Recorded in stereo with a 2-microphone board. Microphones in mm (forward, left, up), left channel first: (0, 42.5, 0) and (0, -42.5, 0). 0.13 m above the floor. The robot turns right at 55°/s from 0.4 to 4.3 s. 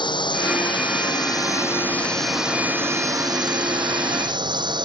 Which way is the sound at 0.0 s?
75° left.